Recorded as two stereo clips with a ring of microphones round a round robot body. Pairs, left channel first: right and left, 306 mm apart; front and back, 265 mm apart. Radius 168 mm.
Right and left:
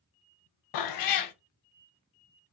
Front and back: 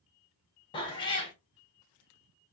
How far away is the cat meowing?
About 0.5 m.